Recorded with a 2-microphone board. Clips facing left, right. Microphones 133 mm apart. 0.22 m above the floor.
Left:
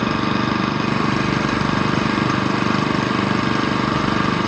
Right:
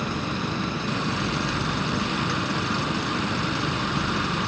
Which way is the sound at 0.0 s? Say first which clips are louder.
Left 9 dB; 75° left (ahead or behind).